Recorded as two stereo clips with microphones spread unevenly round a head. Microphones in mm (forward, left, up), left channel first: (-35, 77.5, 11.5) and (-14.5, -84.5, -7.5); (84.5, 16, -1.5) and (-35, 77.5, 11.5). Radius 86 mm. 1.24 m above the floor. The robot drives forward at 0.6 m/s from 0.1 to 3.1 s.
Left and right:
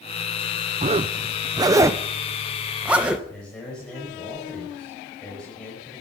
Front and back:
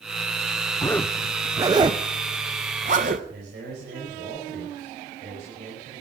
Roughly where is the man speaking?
Behind.